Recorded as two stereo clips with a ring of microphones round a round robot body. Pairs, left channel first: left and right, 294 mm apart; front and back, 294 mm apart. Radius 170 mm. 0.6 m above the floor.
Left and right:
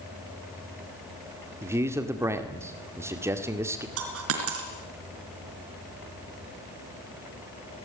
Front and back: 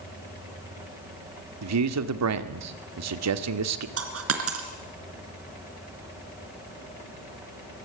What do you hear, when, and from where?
1.6 s a man speaking: 170° right, 1.8 m
4.0 s a dropped coin: 140° right, 3 m